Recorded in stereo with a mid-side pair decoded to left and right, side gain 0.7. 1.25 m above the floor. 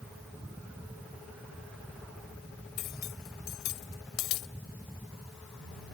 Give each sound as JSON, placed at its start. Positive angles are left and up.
{"t": 0.0, "sound": "a fan", "azimuth_deg": 0}
{"t": 2.8, "sound": "cutlery clinking", "azimuth_deg": 65}